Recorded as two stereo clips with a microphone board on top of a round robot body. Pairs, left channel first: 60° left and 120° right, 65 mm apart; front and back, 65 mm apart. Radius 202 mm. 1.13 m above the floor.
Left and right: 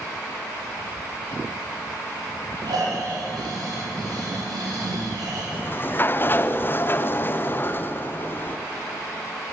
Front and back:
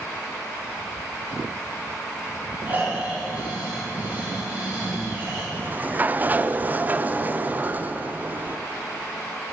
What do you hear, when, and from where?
2.7 s snoring: 115° right, 3.5 m
5.5 s a sliding door: 120° left, 0.6 m